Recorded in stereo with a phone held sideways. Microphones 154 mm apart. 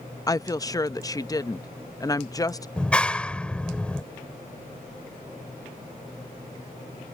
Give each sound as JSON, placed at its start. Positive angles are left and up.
{"t": 0.3, "sound": "a woman speaking", "side_deg": 25}
{"t": 2.8, "sound": "a clap", "side_deg": 5}